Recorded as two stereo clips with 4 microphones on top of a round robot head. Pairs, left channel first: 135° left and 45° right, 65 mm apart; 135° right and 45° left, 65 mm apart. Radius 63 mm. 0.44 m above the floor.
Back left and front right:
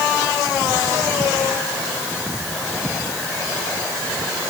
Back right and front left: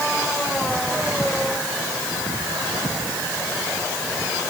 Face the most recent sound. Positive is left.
No sound to turn to.